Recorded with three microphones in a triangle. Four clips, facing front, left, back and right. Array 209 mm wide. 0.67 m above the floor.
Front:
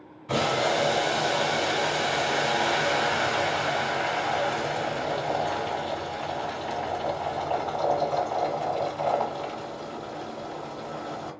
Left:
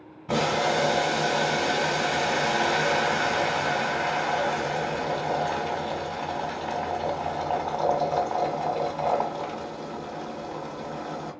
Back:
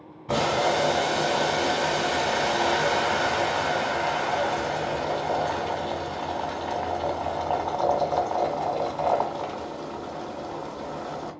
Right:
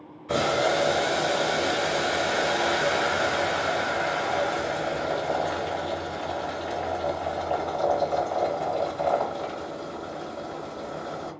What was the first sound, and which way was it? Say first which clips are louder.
Boiling: right 1 dB, back 2 dB; 150° left.